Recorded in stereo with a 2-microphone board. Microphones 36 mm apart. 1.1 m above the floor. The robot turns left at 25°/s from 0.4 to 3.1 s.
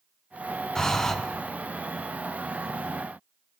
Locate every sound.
0.8 s breathing: 20° left (ahead or behind), 0.5 m; by 1.1 s 15° left (ahead or behind), 0.5 m